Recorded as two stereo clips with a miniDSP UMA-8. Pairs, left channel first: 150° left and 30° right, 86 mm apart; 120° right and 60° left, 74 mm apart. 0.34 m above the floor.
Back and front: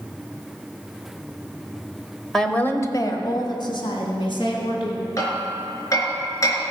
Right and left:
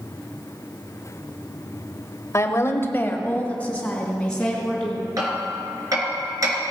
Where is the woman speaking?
125° right, 1.0 m; by 5.1 s 155° left, 4 m.